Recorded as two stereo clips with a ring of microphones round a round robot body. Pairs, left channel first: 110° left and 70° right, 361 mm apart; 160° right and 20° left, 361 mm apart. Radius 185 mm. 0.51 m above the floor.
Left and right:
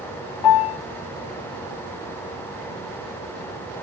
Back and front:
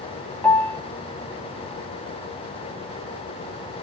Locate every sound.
0.4 s a piano: 115° left, 2.5 m